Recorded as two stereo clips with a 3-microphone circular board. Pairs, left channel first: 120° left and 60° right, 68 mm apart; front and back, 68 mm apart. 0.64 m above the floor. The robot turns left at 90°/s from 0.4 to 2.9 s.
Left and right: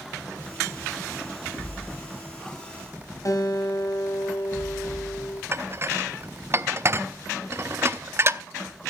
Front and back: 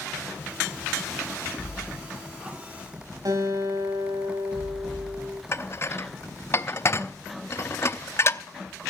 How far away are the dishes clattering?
About 0.6 m.